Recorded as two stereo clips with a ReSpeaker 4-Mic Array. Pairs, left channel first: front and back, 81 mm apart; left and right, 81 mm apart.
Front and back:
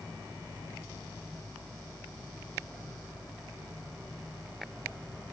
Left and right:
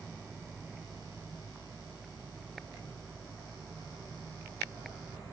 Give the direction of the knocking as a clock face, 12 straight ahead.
I don't hear knocking.